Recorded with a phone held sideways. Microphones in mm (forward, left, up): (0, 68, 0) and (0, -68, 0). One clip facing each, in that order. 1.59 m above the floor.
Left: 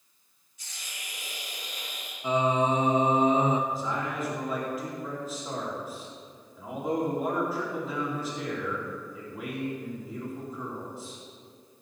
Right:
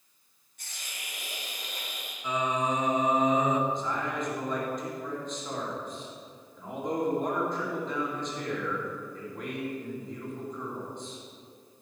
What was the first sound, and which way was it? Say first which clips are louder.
A hiss: even; 55° right (ahead or behind).